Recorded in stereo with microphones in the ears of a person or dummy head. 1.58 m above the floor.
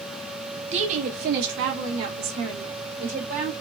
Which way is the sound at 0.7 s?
35° right (ahead or behind).